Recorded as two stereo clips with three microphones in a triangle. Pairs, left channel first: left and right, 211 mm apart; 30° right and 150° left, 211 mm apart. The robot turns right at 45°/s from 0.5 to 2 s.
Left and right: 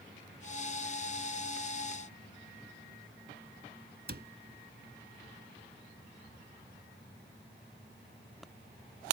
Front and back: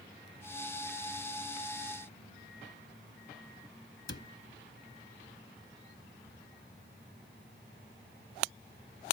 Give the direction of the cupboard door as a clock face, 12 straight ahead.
2 o'clock.